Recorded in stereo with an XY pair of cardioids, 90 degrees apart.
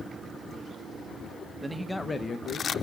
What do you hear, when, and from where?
1.6 s a man speaking: 20° right, 0.7 m; by 2.7 s 80° left, 0.8 m